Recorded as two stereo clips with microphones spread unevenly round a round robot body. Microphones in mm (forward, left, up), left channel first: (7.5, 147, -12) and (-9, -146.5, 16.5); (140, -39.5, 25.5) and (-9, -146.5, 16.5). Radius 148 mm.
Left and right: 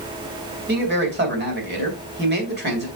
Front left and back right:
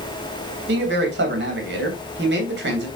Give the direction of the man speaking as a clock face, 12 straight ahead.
5 o'clock.